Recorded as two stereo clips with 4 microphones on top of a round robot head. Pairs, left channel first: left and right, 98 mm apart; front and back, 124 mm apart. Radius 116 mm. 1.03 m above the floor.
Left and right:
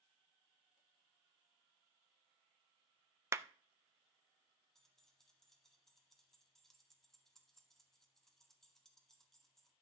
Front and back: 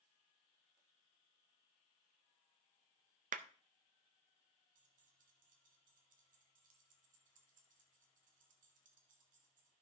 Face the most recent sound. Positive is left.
turn(degrees=175)